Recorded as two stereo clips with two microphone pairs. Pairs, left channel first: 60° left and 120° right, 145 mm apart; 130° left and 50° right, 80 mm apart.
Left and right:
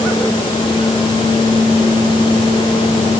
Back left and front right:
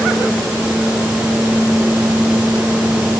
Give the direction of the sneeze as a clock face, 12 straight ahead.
I don't hear a sneeze.